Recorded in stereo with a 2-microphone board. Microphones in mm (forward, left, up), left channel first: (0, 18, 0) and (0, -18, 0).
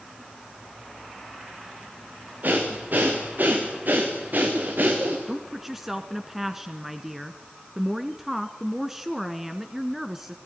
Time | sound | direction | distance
2.4 | breathing | 60° right (ahead or behind) | 4.5 m
5.3 | a woman speaking | 10° right (ahead or behind) | 1.2 m